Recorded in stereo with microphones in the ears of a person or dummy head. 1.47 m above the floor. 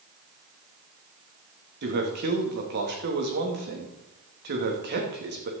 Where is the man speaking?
55° right (ahead or behind), 2.5 m.